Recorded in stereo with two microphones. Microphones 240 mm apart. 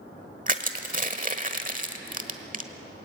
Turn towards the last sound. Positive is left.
turn(degrees=-35)  # may be behind; listen again after turning